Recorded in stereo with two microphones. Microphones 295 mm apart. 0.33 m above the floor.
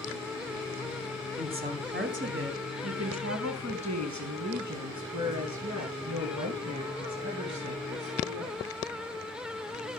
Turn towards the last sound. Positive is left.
turn(degrees=-70)  # may be behind; listen again after turning